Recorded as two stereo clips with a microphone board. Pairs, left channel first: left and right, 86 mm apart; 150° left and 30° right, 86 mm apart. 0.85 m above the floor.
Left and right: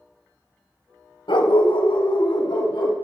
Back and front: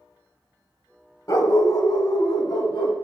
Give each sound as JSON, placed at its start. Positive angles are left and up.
{"t": 1.3, "sound": "a dog barking", "azimuth_deg": 100, "distance_m": 1.4}